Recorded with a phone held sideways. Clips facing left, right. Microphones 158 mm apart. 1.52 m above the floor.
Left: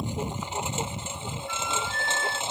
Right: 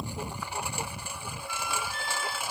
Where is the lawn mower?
20° left (ahead or behind); by 2.5 s 25° left (ahead or behind).